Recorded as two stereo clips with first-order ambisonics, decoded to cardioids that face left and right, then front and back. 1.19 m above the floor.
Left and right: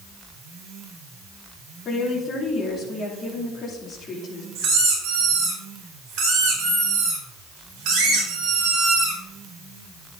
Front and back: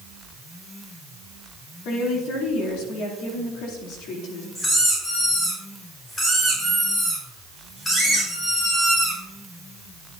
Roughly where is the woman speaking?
Ahead.